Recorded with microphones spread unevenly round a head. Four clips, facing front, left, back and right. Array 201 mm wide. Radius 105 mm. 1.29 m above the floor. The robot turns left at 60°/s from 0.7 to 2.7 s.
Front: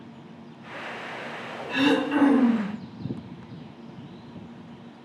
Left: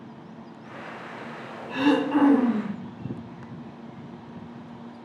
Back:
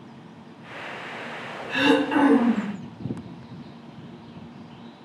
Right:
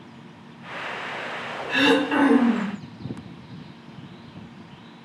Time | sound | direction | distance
1.7 | throat clearing | 80° right | 0.6 m